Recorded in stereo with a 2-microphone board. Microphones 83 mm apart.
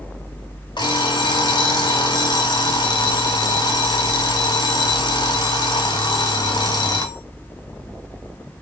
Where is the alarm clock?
60° left (ahead or behind), 0.9 m.